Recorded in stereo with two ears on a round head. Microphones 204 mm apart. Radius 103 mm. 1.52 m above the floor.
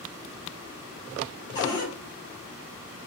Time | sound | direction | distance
1.6 | a cupboard door | 20° left (ahead or behind) | 1.6 m